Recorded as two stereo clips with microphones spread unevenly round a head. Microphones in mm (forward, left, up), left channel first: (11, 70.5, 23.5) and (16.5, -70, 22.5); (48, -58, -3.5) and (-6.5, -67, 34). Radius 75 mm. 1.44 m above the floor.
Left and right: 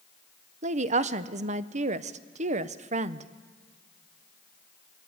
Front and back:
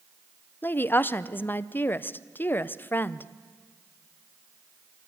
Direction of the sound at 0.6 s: 45° right.